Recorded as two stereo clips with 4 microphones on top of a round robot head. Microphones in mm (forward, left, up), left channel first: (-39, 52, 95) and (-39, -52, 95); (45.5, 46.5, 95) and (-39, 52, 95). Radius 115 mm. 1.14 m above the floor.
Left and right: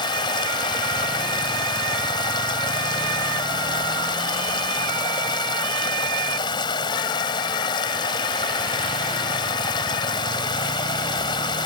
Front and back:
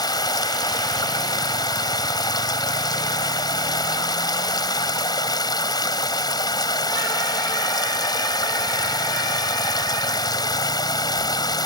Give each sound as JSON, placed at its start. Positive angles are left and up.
{"t": 0.0, "sound": "running water", "azimuth_deg": 35}